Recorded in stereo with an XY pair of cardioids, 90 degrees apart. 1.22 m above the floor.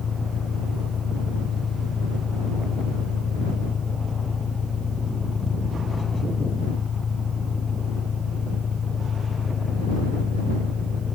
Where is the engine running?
55° left.